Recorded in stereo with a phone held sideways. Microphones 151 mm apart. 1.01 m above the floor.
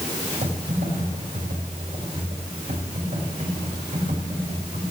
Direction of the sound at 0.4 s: 70° right (ahead or behind).